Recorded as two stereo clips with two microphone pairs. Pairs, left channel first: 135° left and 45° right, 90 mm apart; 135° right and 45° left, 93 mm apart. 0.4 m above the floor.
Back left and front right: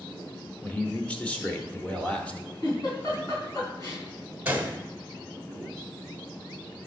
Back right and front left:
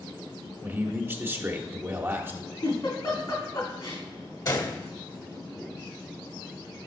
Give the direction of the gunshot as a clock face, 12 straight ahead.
4 o'clock.